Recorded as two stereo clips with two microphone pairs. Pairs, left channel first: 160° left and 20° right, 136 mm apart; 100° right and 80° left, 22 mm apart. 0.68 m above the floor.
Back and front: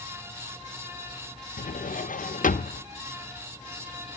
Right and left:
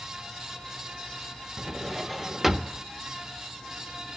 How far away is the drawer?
About 0.8 m.